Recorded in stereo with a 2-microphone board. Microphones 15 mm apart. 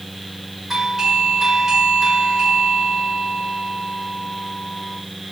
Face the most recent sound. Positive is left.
turn(degrees=-25)  # may be behind; listen again after turning